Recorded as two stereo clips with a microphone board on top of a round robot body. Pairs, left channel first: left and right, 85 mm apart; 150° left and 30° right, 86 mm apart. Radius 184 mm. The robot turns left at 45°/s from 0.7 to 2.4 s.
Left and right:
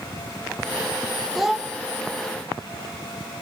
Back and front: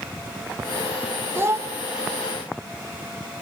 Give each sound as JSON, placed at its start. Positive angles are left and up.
{"t": 1.4, "sound": "a child speaking", "azimuth_deg": 0, "distance_m": 0.5}